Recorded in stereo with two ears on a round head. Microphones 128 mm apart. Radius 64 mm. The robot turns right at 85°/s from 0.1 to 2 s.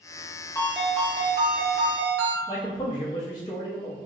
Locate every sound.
0.6 s a ringtone: 165° left, 1.0 m; by 2.4 s 75° right, 1.0 m
2.5 s a man speaking: 30° left (ahead or behind), 0.5 m